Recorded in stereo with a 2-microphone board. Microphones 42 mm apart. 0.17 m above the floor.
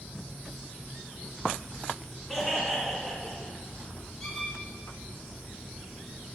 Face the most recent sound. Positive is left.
turn(degrees=0)  # may be behind; listen again after turning